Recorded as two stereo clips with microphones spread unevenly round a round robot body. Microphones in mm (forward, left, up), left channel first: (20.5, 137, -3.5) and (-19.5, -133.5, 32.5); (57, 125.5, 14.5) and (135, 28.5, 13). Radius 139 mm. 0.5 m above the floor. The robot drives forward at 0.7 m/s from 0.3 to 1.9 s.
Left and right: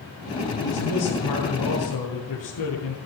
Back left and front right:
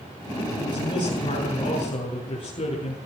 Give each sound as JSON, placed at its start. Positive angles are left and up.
{"t": 0.6, "sound": "a man speaking", "azimuth_deg": 75, "distance_m": 7.5}